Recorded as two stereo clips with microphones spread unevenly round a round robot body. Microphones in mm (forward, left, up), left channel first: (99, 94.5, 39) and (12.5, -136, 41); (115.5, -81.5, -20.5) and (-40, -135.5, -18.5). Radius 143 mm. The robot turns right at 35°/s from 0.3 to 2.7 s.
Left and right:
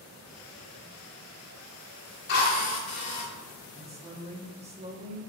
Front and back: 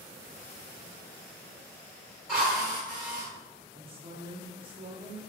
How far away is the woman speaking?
About 1.0 m.